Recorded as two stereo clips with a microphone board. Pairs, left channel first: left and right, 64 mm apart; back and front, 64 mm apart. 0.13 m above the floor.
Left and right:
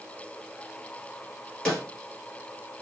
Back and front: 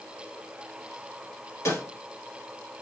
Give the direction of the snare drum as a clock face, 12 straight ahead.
6 o'clock.